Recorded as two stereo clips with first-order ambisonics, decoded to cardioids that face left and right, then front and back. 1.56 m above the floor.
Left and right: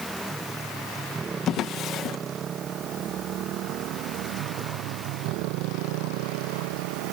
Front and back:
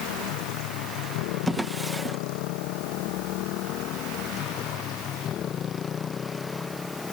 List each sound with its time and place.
0.0 s a motorcycle: 5° right; by 7.1 s 80° right
1.5 s a drawer: 100° left